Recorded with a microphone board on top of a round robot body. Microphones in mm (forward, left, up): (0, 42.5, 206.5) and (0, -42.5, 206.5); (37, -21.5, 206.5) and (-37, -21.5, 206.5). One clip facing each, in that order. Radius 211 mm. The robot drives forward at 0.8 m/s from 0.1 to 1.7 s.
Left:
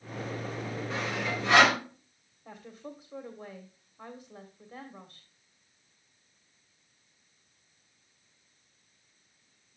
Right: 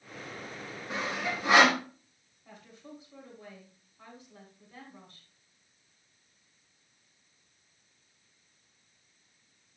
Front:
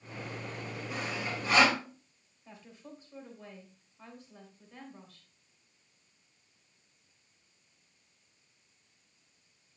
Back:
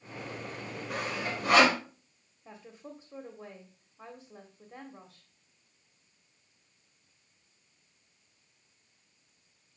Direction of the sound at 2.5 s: 140° left.